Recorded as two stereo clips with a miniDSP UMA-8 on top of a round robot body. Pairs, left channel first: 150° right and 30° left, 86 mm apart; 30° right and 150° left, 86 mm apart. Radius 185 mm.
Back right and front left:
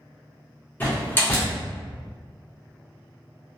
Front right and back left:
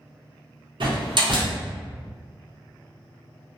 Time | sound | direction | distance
0.8 | a door slam | 140° left | 1.0 m